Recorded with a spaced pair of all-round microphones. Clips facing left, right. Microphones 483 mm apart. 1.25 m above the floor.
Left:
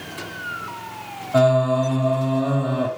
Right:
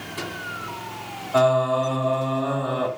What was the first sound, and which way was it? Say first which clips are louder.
Singing: left 2 dB; 45° left (ahead or behind).